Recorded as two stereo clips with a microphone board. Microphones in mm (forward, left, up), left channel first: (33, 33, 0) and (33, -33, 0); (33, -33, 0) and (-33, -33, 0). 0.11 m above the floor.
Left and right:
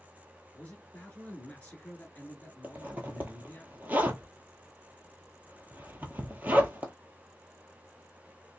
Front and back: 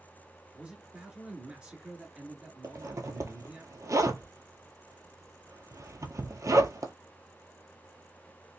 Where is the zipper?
150° right, 0.8 m.